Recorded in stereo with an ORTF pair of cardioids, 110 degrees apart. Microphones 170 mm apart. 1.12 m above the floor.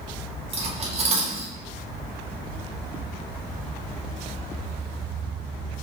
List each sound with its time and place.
0.5 s cutlery clinking: 40° right, 0.8 m